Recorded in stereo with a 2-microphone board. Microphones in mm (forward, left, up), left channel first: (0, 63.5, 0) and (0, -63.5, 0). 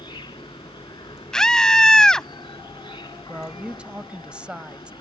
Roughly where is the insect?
Left.